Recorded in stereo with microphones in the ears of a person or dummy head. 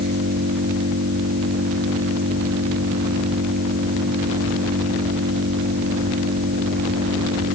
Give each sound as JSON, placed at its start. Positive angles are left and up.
{"t": 0.0, "sound": "an engine running", "side_deg": -60}